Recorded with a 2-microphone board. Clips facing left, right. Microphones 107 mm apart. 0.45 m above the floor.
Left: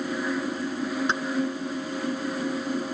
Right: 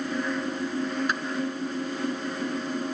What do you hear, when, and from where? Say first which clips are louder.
1.1 s keys jangling: left 2 dB; 25° left (ahead or behind)